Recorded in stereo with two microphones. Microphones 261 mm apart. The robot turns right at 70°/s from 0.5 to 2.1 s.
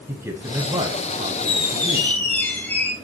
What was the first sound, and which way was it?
A man speaking, 10° right (ahead or behind).